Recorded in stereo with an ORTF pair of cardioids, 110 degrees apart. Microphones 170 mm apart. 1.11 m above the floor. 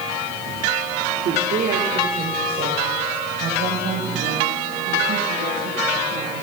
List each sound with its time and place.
1.2 s a woman speaking: 60° right, 3 m; by 6.4 s 70° right, 9.5 m